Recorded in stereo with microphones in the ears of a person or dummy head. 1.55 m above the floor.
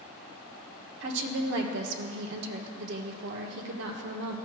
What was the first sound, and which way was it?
A woman speaking, 65° right (ahead or behind).